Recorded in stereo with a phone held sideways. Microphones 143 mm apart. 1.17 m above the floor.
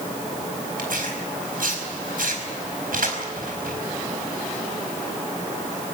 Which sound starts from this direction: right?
Tearing paper, at 0.8 s.